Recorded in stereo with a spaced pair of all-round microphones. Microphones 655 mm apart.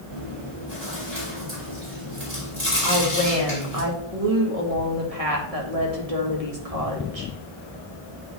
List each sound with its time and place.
0.1 s chewing: 45° right (ahead or behind), 3.5 m
2.8 s a woman speaking: 65° right (ahead or behind), 2.0 m